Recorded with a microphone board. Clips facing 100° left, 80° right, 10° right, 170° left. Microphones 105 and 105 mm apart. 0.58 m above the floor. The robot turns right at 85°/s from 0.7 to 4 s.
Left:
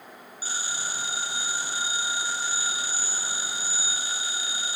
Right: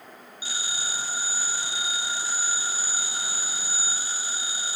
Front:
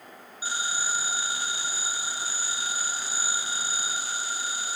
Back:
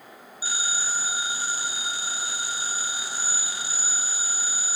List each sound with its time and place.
0.4 s a phone ringing: 50° left, 4.5 m; by 4.8 s 30° right, 4.5 m